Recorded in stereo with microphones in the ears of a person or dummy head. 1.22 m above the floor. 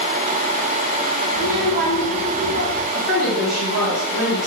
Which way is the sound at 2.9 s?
Centre (ahead or behind).